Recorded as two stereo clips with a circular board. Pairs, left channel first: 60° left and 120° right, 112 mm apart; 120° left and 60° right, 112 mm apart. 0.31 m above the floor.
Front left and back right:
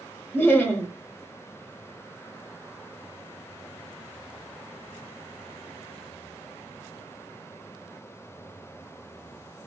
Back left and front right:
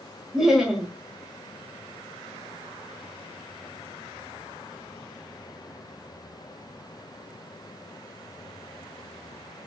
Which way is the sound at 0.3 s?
20° left.